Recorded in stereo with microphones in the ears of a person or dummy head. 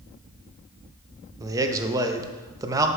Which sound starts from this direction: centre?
A man speaking, at 1.4 s.